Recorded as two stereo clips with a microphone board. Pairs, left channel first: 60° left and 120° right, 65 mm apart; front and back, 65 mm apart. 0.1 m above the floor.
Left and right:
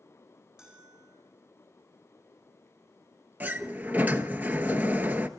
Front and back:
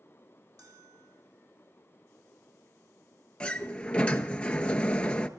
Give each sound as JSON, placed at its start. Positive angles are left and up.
{"t": 0.6, "sound": "a bell", "azimuth_deg": 160, "distance_m": 6.5}
{"t": 3.4, "sound": "a sliding door", "azimuth_deg": -70, "distance_m": 0.9}